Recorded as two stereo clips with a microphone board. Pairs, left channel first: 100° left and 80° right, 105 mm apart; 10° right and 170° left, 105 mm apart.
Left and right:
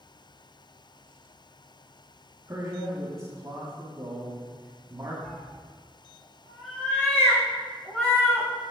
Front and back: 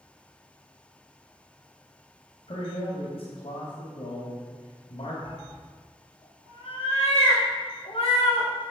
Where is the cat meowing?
25° left, 5 m.